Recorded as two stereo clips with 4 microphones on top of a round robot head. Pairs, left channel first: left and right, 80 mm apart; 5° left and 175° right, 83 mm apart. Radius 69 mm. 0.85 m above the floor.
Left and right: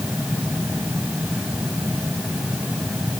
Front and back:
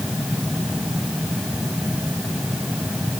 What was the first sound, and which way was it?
Only background noise.